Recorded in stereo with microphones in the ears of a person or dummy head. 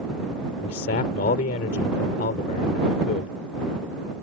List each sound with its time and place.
0.6 s a man speaking: 55° left (ahead or behind)